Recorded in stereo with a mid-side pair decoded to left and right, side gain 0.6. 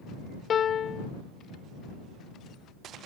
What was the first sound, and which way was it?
A piano, 40° left.